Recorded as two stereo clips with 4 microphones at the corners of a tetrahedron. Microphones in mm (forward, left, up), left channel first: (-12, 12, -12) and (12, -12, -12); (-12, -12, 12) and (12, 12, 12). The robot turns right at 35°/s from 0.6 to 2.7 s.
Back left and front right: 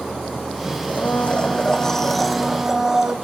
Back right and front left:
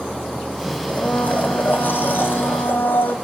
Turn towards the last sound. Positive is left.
turn(degrees=-120)